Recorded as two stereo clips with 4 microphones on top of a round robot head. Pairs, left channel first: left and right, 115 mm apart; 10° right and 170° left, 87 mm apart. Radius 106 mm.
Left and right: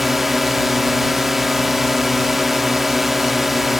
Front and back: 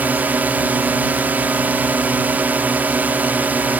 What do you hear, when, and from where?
0.0 s a drone: 175° right